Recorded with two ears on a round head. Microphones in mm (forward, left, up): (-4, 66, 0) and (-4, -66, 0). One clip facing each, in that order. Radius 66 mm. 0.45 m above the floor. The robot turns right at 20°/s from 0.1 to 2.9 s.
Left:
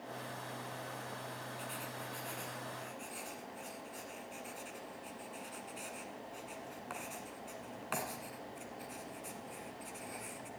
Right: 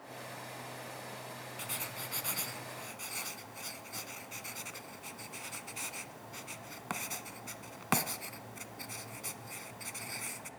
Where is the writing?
80° right, 0.9 m; by 10.5 s 70° right (ahead or behind), 0.9 m.